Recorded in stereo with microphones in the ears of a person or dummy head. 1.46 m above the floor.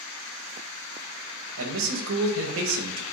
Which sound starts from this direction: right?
A man speaking, at 1.6 s.